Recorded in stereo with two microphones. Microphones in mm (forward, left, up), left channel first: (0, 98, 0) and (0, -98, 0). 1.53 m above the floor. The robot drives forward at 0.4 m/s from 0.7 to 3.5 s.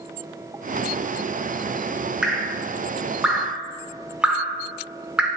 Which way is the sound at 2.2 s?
5° right (ahead or behind).